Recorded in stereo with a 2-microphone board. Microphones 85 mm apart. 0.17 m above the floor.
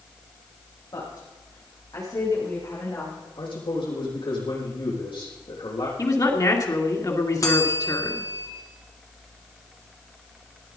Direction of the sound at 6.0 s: 45° left (ahead or behind).